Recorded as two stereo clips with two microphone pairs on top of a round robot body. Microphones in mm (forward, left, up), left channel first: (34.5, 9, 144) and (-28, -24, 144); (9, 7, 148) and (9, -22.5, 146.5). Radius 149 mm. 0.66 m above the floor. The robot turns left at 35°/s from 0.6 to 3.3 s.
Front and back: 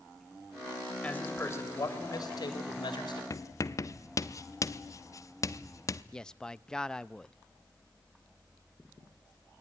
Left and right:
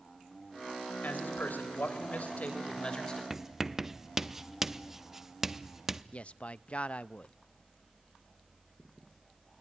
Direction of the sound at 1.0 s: 100° left.